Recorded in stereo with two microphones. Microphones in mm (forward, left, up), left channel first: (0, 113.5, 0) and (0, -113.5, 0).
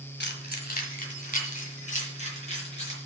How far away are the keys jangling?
About 1.4 m.